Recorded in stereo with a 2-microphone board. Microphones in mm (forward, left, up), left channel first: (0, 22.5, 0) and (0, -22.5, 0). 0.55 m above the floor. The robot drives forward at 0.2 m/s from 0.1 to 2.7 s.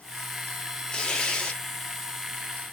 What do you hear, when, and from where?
0.9 s tearing paper: 20° left (ahead or behind), 1.3 m